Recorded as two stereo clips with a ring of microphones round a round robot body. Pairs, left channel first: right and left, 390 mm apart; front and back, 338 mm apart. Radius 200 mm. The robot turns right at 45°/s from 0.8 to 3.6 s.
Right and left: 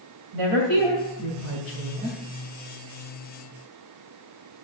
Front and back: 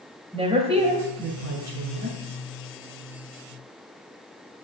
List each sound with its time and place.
0.3 s a woman speaking: 105° left, 2.5 m; by 2.2 s 170° left, 2.5 m